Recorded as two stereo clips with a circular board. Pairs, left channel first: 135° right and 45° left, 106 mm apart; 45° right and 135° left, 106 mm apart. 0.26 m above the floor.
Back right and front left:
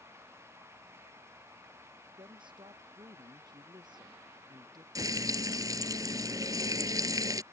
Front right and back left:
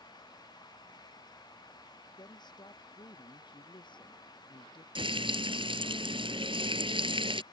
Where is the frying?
100° left.